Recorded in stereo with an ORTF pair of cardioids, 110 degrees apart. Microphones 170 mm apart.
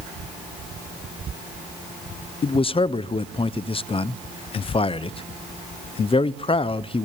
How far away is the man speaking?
About 0.7 m.